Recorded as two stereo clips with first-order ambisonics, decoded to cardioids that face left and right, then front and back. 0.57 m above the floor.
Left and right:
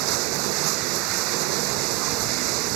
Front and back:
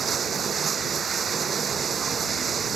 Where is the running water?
110° right.